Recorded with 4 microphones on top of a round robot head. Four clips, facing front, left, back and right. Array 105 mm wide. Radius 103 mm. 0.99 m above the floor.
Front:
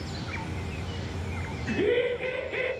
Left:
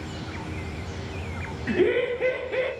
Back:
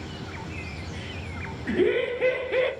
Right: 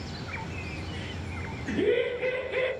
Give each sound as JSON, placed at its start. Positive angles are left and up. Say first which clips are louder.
{"t": 1.7, "sound": "laughter", "louder": "left 3 dB, back 2 dB", "azimuth_deg": 110, "distance_m": 1.3}